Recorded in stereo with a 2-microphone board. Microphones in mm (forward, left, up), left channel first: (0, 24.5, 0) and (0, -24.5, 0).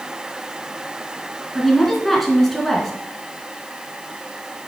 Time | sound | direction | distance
1.6 | a woman speaking | 5° left (ahead or behind) | 1.6 m